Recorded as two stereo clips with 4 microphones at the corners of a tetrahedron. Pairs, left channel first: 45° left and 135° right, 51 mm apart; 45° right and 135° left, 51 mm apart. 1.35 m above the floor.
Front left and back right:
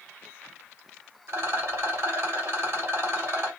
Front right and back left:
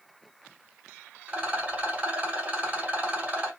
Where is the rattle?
165° right, 1.4 m.